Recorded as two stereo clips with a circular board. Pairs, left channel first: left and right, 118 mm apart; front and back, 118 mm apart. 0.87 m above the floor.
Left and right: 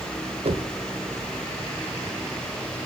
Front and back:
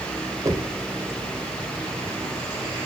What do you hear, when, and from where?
0.5 s knocking: 120° right, 2 m